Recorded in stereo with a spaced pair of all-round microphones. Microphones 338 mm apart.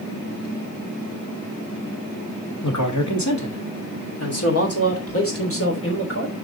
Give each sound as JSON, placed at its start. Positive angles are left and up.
{"t": 2.6, "sound": "a man speaking", "side_deg": 60, "distance_m": 1.9}